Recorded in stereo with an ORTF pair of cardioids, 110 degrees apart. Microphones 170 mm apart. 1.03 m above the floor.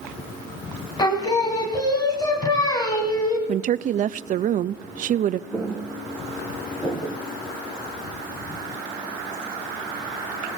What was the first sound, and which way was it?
Singing, 25° left.